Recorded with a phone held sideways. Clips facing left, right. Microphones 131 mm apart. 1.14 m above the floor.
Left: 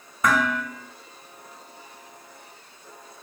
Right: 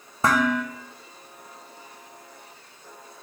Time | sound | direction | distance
0.2 | dishes clattering | 30° right (ahead or behind) | 0.6 m